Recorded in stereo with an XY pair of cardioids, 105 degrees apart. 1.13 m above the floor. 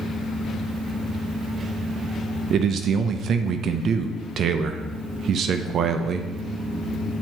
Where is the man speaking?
65° right, 0.6 m.